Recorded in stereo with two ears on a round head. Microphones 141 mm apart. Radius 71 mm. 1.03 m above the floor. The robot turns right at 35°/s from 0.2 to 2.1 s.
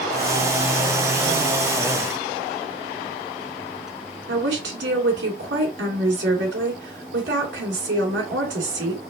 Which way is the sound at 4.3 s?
90° right.